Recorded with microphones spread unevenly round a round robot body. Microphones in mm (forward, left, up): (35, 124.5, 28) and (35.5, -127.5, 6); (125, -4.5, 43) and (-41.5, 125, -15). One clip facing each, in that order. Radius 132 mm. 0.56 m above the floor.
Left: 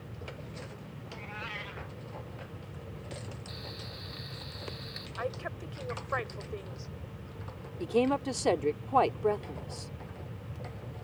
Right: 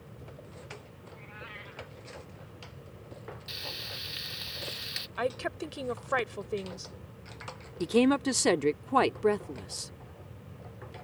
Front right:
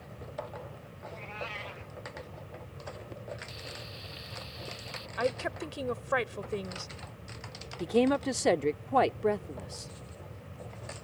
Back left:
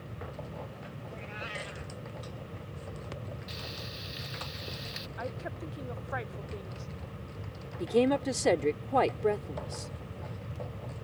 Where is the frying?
140° right.